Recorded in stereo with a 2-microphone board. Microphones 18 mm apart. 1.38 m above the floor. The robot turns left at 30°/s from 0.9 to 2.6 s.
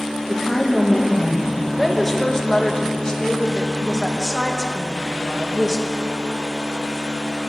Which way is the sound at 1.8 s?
5° left (ahead or behind).